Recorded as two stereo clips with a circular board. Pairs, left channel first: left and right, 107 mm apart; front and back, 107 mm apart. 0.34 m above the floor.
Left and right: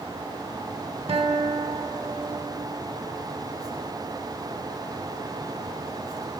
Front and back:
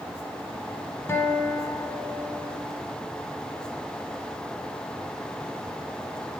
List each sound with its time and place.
1.1 s a guitar: 65° right, 0.8 m